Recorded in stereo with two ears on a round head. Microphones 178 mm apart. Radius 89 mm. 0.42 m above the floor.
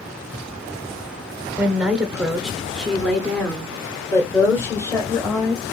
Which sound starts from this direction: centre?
A woman speaking, at 1.6 s.